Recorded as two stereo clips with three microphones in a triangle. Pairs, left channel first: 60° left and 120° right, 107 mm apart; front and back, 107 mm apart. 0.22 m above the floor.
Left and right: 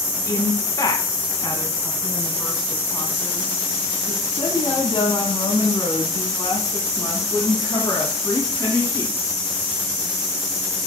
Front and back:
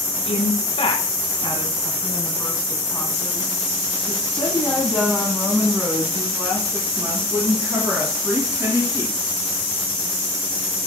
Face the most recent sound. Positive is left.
turn(degrees=120)